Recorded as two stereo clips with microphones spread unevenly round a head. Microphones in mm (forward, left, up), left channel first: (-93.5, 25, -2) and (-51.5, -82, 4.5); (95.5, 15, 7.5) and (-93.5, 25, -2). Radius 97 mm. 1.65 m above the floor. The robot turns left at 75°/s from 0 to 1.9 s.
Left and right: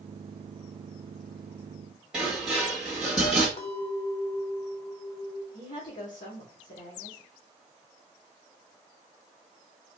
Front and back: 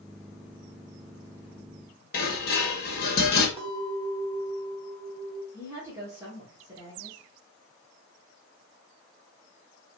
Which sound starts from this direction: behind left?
A clink, at 3.6 s.